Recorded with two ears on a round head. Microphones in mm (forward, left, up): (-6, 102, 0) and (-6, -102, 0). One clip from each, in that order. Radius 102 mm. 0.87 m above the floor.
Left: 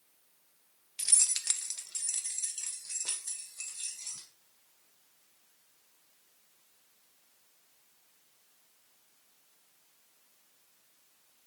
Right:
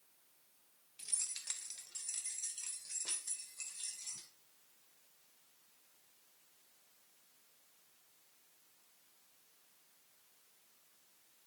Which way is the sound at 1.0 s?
60° left (ahead or behind).